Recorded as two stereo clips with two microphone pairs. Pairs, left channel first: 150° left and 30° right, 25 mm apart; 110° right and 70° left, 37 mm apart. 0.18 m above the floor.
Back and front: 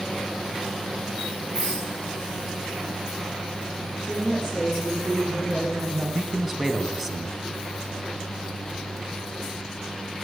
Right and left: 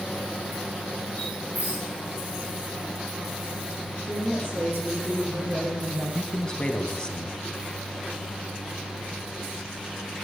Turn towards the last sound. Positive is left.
turn(degrees=-105)